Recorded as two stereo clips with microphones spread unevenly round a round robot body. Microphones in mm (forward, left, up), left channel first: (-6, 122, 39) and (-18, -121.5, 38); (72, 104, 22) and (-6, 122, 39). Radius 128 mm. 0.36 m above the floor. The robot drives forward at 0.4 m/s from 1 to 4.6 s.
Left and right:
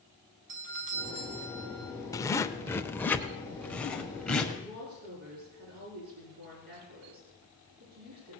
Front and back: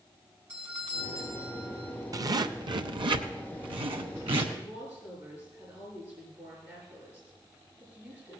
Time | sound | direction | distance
0.5 | a doorbell | 110° right | 3 m
2.1 | a zipper | 150° left | 0.6 m
4.5 | a woman speaking | 125° right | 5 m